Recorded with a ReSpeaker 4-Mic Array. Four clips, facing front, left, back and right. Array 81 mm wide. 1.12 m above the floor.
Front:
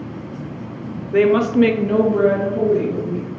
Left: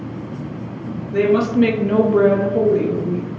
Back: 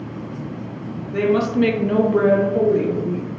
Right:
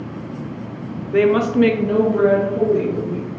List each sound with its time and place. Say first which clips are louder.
1.1 s a woman speaking: right 1 dB, front 4 dB; 35° right, 0.9 m; by 3.3 s 140° left, 1.6 m